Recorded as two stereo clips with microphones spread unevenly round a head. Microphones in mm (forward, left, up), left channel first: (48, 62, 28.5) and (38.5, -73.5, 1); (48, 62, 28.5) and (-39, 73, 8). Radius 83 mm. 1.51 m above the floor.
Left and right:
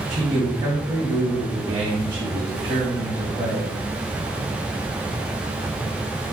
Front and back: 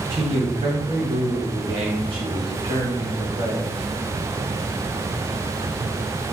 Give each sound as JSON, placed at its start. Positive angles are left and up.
{"t": 0.1, "sound": "a man speaking", "azimuth_deg": -155, "distance_m": 1.4}